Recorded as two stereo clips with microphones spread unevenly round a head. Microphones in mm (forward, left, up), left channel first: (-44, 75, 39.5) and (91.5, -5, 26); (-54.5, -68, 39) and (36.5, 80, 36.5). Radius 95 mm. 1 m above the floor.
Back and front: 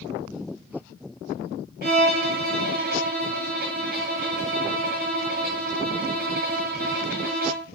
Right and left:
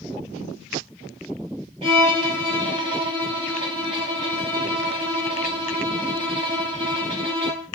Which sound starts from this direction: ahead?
A violin, at 1.8 s.